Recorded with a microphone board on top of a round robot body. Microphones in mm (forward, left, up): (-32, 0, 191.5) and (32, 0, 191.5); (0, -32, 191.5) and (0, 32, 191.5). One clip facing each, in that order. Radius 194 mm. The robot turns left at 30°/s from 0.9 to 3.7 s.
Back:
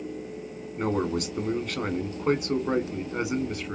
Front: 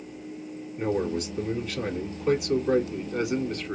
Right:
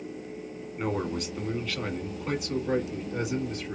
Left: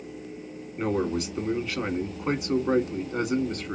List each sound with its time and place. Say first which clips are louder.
0.8 s a man speaking: even, left 4 dB; 175° right, 1.5 m; by 3.8 s 100° left, 1.5 m